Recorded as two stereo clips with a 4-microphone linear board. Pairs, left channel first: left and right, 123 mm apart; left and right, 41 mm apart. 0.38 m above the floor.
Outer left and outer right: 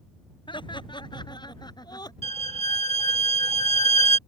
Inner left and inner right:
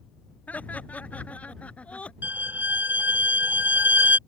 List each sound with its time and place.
0.5 s laughter: 40° left (ahead or behind); by 2.1 s 35° left (ahead or behind)
2.2 s a violin: 55° right (ahead or behind)